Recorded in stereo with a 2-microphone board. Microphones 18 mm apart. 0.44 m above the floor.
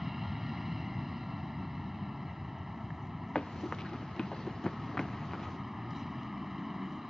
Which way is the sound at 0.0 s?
15° right (ahead or behind).